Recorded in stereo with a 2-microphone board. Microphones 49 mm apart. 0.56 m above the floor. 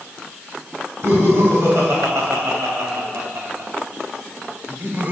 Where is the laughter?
70° right (ahead or behind), 4 m; by 5.1 s 45° right (ahead or behind), 1.7 m.